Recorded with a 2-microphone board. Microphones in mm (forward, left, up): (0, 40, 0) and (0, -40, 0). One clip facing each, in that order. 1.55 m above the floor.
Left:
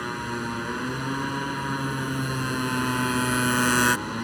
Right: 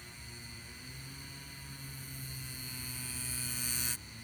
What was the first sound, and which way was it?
A motorcycle, 75° left (ahead or behind).